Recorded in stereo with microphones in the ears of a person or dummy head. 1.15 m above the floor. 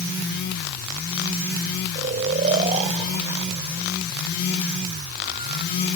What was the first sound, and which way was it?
Snoring, 40° right (ahead or behind).